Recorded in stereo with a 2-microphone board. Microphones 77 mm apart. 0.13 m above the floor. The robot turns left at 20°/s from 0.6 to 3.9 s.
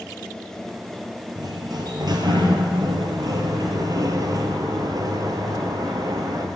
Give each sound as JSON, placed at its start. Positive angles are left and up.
{"t": 1.4, "sound": "a sliding door", "azimuth_deg": -70, "distance_m": 1.8}